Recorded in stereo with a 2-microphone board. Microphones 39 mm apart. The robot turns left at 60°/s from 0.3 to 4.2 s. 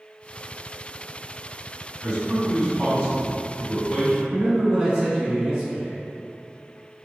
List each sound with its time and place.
2.0 s a man speaking: 15° left (ahead or behind), 1.5 m; by 4.2 s 5° left (ahead or behind), 1.5 m
4.3 s a man speaking: 15° right (ahead or behind), 1.0 m